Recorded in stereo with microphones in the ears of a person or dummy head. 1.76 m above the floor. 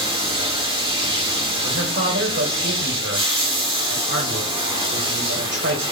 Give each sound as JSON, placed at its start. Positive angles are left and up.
{"t": 0.0, "sound": "running water", "side_deg": -30, "distance_m": 2.5}
{"t": 1.6, "sound": "a man speaking", "side_deg": -60, "distance_m": 1.4}